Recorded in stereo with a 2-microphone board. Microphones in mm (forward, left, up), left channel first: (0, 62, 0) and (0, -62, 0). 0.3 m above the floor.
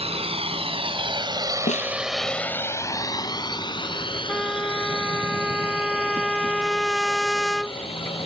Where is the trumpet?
Centre (ahead or behind).